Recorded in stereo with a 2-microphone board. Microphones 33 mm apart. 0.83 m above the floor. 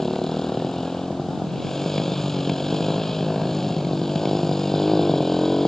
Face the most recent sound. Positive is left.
turn(degrees=10)  # may be behind; listen again after turning